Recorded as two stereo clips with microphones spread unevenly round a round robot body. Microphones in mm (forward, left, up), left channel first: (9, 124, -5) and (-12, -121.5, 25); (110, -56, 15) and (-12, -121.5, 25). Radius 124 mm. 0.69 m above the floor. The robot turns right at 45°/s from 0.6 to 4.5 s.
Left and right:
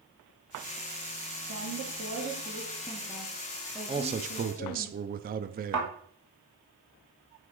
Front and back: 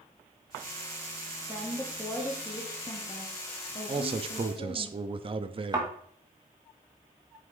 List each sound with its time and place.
1.5 s a woman speaking: 80° right, 1.4 m; by 4.9 s 55° left, 1.4 m
3.9 s a man speaking: 160° right, 0.5 m; by 6.0 s 135° right, 0.5 m
5.7 s a thud: 90° right, 2 m